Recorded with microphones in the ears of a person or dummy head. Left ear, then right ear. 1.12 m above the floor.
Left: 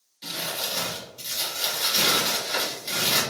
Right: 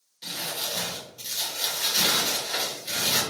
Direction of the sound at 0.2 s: 5° left (ahead or behind).